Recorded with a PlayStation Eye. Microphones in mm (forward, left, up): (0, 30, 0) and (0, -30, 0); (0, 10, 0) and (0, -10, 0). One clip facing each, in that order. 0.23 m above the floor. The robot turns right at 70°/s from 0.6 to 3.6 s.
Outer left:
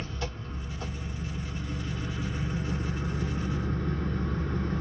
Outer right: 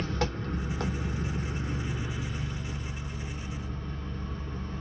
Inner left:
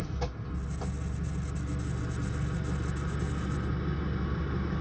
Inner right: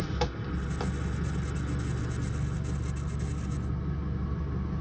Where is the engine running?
110° right, 0.8 m; by 4.8 s 100° left, 0.8 m.